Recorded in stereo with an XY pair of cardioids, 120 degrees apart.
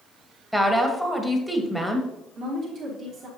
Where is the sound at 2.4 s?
50° right, 2 m.